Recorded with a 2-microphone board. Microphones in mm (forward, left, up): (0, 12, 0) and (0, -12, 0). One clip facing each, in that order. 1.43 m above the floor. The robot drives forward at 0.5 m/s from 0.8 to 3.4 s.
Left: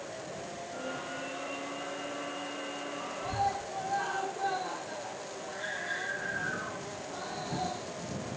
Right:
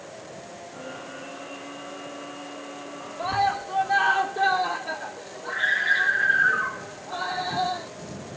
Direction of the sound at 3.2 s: 75° right (ahead or behind).